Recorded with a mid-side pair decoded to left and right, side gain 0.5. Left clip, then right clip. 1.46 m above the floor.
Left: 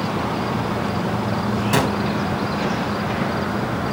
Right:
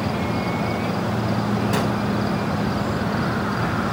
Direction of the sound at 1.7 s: 40° left.